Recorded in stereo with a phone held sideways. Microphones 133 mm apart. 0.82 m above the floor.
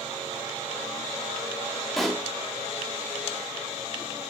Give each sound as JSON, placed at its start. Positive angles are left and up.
{"t": 2.0, "sound": "a pop", "side_deg": 0, "distance_m": 0.8}